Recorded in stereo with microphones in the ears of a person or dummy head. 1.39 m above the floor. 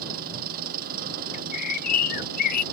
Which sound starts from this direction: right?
An engine running, at 0.0 s.